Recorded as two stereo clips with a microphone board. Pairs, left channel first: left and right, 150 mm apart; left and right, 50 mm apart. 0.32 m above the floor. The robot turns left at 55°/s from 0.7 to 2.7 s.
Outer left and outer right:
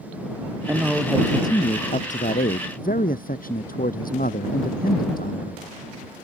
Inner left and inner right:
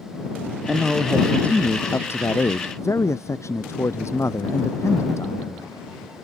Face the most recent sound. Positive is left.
turn(degrees=85)